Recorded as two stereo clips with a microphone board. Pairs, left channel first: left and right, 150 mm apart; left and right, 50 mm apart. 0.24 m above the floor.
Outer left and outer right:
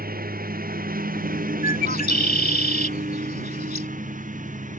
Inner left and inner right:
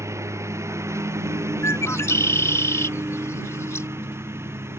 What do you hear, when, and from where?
0.0 s a lawn mower: 75° right (ahead or behind); by 4.8 s 60° right (ahead or behind)
1.6 s a bird: 75° left (ahead or behind)